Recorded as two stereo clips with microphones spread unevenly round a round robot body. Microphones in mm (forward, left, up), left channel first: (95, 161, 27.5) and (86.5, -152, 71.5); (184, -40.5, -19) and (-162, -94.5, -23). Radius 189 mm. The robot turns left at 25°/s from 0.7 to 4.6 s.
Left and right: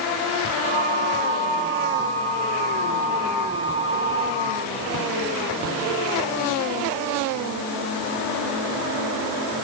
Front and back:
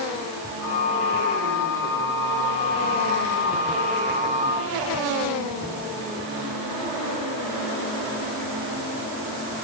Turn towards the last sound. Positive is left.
No sound to turn to.